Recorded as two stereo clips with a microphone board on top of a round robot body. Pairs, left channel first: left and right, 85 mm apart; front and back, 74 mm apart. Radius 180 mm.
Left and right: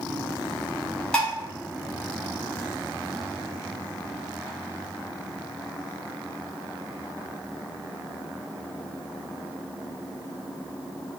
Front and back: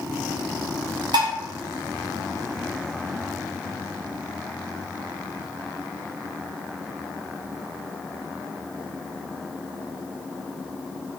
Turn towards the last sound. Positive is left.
turn(degrees=170)